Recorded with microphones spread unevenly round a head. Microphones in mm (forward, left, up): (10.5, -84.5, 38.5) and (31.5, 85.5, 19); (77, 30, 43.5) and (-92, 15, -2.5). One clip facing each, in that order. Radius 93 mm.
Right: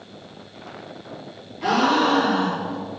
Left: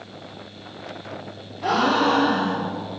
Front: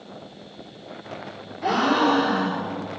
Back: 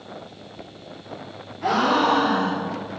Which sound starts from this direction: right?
A gasp, at 1.6 s.